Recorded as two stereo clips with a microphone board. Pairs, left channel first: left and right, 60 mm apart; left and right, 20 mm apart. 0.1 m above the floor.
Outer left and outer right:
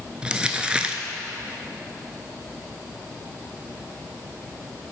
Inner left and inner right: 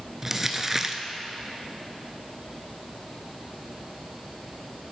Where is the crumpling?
15° right (ahead or behind), 0.5 m.